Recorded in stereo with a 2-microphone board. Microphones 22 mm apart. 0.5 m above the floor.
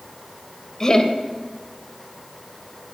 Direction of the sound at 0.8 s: 30° left (ahead or behind).